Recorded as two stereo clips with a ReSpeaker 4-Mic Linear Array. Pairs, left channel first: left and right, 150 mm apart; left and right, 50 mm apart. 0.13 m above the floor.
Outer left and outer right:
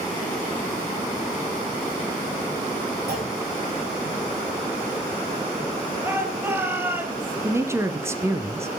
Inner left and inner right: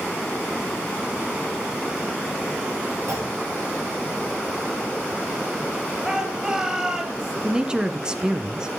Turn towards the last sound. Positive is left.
turn(degrees=-15)  # may be behind; listen again after turning